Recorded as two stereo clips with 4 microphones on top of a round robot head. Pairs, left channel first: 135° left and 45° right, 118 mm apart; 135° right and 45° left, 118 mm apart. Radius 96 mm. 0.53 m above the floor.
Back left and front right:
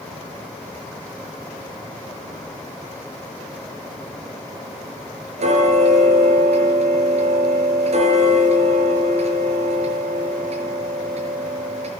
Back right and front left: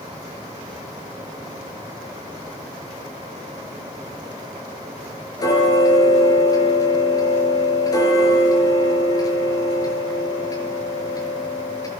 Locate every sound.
5.4 s ticking: 75° right, 6 m